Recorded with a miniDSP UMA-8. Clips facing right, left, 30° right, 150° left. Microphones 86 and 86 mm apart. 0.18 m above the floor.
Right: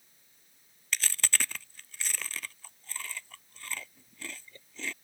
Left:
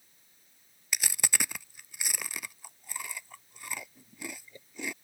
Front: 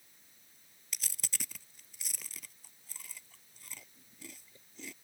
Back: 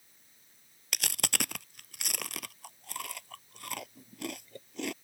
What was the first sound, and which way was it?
Chewing, 165° left.